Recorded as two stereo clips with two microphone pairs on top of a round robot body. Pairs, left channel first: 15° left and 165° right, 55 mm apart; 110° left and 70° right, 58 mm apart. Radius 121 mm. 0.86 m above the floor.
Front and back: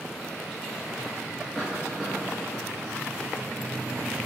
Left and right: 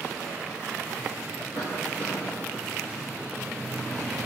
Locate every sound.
1.6 s a cough: 105° left, 2.5 m